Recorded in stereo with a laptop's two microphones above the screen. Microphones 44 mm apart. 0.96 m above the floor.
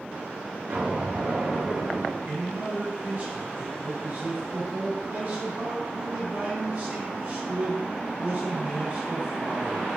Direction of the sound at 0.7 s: 65° right (ahead or behind).